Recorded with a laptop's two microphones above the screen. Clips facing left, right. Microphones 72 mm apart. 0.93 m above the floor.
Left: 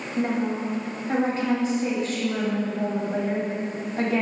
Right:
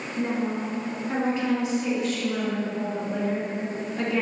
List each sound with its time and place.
0.2 s a woman speaking: 35° left (ahead or behind), 1.5 m